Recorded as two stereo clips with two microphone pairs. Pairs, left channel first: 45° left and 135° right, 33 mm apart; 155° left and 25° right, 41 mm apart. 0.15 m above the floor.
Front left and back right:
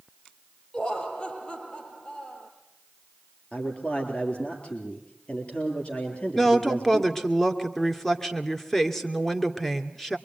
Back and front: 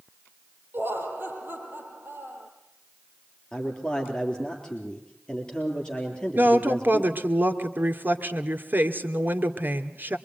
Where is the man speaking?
85° left, 3.5 m.